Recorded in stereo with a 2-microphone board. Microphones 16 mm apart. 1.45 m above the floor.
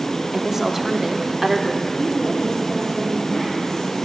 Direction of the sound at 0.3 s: 25° right (ahead or behind).